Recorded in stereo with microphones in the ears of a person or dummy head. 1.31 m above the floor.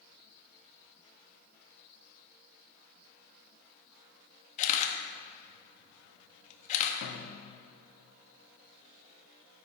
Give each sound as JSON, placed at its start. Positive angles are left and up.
{"t": 4.6, "sound": "a camera shutter", "side_deg": 45, "distance_m": 1.4}
{"t": 7.0, "sound": "a snare drum", "side_deg": 75, "distance_m": 1.5}